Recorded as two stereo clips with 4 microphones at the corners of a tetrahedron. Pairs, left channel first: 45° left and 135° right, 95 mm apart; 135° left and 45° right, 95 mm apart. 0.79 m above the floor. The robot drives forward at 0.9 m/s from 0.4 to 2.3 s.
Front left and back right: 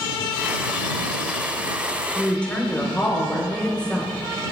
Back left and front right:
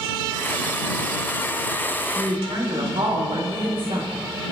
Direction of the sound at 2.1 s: 30° right.